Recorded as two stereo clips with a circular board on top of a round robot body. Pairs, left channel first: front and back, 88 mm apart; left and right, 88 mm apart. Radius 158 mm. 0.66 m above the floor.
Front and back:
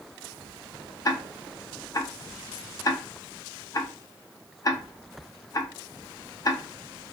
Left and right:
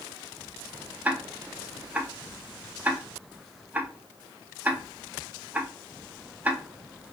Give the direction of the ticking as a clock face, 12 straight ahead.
1 o'clock.